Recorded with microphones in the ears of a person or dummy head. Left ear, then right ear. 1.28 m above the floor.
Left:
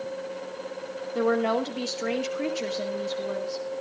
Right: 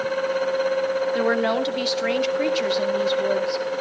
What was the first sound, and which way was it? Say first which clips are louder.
A woman speaking: even; 40° right (ahead or behind).